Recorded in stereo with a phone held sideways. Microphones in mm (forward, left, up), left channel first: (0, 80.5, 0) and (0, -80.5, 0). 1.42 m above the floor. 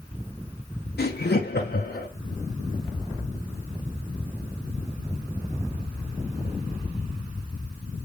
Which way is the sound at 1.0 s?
85° left.